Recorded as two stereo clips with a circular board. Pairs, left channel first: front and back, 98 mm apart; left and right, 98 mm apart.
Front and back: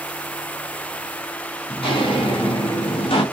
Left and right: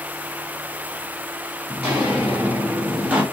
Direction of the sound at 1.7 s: 15° right.